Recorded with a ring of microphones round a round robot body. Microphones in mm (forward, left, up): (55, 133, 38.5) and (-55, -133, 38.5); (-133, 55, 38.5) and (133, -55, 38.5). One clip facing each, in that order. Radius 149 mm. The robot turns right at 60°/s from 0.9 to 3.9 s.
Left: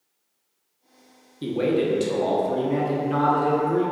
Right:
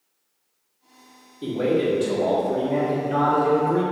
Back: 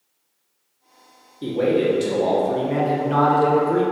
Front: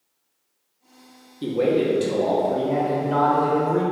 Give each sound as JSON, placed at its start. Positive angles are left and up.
{"t": 1.4, "sound": "a man speaking", "azimuth_deg": 35, "distance_m": 0.9}